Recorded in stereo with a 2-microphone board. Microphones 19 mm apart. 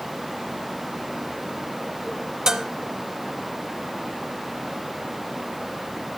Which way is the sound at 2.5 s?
35° right (ahead or behind).